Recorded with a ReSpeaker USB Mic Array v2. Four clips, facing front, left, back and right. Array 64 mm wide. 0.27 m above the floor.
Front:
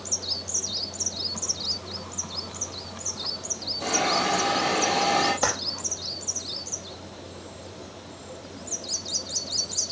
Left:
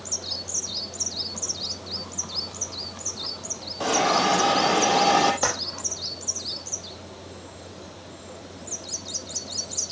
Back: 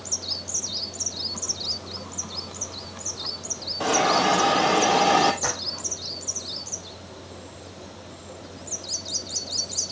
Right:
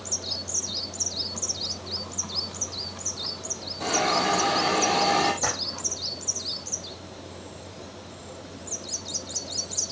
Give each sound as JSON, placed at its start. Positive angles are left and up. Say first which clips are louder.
{"t": 3.8, "sound": "a hiss", "louder": "left 3 dB, back 4 dB", "azimuth_deg": 145, "distance_m": 2.5}
{"t": 5.4, "sound": "a clap", "louder": "left 3 dB, front 3 dB", "azimuth_deg": 45, "distance_m": 7.5}